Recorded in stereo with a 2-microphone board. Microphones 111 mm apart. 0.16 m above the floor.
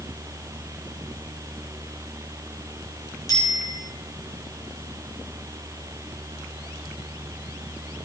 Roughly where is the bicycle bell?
Left.